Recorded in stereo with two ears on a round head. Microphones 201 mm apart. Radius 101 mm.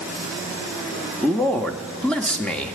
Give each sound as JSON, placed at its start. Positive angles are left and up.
{"t": 1.2, "sound": "a man speaking", "side_deg": 5, "distance_m": 0.8}